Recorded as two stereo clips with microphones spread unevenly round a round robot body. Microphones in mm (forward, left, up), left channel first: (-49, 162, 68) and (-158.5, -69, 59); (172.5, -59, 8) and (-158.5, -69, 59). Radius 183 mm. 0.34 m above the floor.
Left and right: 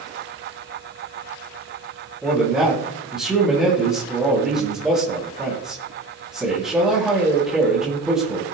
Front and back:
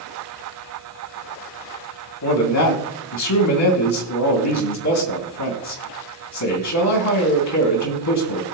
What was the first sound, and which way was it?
A man speaking, 30° right.